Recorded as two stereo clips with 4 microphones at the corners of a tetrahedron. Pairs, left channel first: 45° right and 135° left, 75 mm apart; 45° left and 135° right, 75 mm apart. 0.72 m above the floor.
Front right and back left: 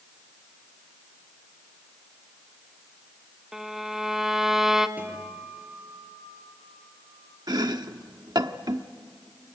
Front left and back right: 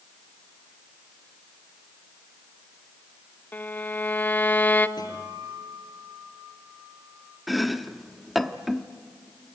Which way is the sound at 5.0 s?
65° left.